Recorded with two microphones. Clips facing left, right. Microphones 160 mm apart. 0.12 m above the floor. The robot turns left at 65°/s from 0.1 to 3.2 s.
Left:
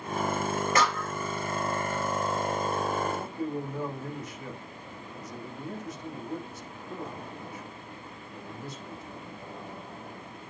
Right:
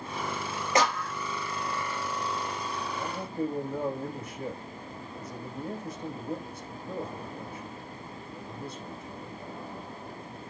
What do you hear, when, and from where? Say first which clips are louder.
0.8 s a clap: right 5 dB; 20° right (ahead or behind), 3 m; by 1.1 s 5° left (ahead or behind), 3 m
3.0 s a man speaking: left 1 dB; 40° right (ahead or behind), 8 m; by 9.2 s 55° right (ahead or behind), 8 m